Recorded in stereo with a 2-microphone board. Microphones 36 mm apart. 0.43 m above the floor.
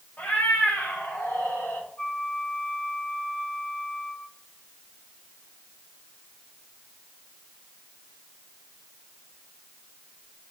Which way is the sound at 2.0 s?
65° left (ahead or behind).